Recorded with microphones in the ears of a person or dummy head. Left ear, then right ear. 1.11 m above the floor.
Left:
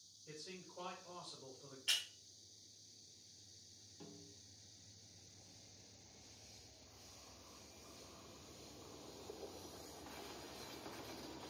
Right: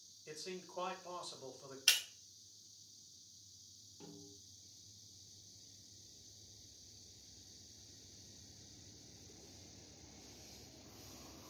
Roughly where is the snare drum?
Left.